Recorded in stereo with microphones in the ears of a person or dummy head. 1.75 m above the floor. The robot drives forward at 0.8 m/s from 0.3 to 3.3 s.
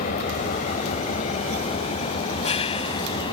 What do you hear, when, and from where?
0.0 s an engine running: 45° left (ahead or behind); by 3.3 s 25° left (ahead or behind)